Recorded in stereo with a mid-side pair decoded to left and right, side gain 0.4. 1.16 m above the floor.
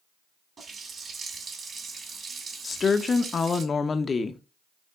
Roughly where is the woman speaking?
Ahead left.